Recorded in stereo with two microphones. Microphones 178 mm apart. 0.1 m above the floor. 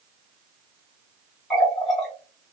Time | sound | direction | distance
1.5 | a running tap | centre (ahead or behind) | 1.3 m